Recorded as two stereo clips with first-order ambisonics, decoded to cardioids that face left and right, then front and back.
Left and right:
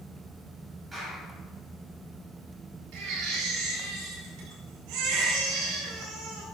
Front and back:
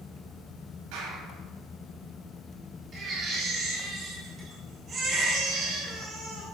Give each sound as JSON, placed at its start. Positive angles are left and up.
{"t": 0.9, "sound": "a clap", "azimuth_deg": -165, "distance_m": 6.0}
{"t": 2.9, "sound": "a baby crying", "azimuth_deg": -115, "distance_m": 4.0}